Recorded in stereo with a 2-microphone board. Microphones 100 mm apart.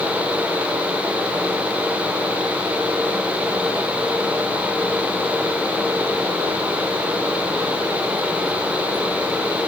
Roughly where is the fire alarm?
I don't hear a fire alarm.